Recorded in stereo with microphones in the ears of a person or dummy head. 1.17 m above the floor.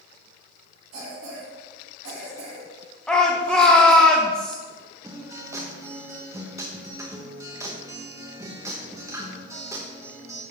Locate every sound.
0.9 s a cough: 70° right (ahead or behind), 3.5 m
3.1 s a shout: centre (ahead or behind), 0.9 m
5.0 s a guitar: 15° right (ahead or behind), 1.0 m